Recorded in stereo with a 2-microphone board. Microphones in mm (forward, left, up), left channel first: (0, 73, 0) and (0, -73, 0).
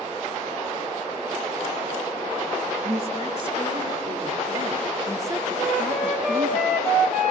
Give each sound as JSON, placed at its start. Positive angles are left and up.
{"t": 2.8, "sound": "a woman speaking", "side_deg": -45, "distance_m": 2.5}
{"t": 5.6, "sound": "a flute", "side_deg": 0, "distance_m": 6.0}